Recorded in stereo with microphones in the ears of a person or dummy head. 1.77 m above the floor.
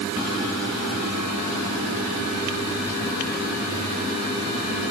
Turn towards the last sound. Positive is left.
No sound to turn to.